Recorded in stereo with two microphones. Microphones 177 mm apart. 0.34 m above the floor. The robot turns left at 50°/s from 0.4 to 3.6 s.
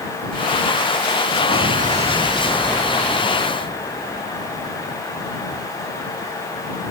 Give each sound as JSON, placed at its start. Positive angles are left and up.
{"t": 1.5, "sound": "an explosion", "azimuth_deg": -115}